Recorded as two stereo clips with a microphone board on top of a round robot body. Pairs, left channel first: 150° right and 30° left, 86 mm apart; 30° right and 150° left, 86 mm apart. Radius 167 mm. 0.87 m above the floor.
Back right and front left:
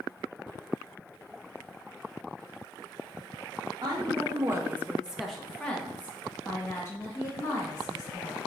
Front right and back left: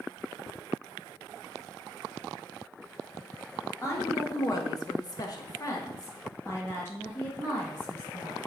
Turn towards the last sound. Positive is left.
turn(degrees=-100)